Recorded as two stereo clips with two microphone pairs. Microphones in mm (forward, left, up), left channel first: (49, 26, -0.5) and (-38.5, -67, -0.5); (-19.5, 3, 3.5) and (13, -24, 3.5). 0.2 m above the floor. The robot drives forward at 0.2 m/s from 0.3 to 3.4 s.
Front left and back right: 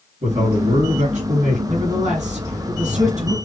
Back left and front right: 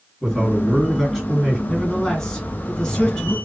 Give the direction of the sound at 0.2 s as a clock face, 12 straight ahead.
4 o'clock.